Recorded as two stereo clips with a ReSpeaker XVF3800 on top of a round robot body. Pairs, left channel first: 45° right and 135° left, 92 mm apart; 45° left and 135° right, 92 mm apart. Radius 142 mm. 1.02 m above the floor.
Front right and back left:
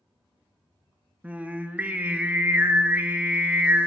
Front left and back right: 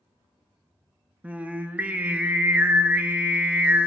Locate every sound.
1.2 s singing: straight behind, 0.7 m